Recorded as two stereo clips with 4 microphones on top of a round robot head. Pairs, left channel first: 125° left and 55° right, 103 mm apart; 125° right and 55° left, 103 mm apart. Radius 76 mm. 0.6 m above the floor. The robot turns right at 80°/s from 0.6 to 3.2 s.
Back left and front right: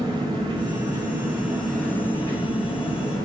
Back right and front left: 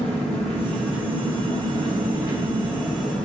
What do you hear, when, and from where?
0.0 s an engine running: 45° right, 1.0 m; by 3.2 s 165° left, 1.0 m